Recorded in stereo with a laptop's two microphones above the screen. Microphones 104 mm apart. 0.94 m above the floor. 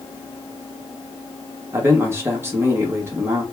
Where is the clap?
No clap in this recording.